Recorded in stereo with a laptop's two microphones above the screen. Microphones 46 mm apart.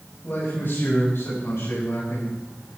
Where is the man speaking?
45° left (ahead or behind), 5 m; by 2.3 s 60° left (ahead or behind), 7 m.